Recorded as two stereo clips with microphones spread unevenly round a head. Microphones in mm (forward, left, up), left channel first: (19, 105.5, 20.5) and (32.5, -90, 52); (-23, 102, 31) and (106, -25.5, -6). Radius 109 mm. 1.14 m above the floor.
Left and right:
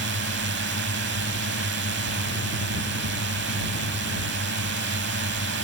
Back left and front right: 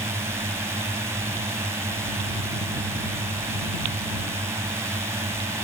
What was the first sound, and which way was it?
A drone, 125° right.